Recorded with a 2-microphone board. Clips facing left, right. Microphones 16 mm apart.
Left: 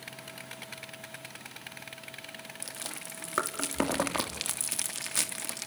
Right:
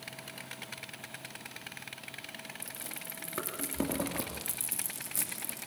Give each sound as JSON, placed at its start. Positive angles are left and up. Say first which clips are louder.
{"t": 2.6, "sound": "chewing", "louder": "left 3 dB", "side_deg": 50, "distance_m": 3.0}